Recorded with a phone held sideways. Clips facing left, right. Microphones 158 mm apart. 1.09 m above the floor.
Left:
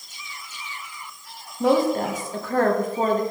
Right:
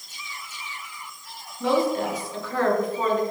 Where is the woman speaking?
45° left (ahead or behind), 1.1 m.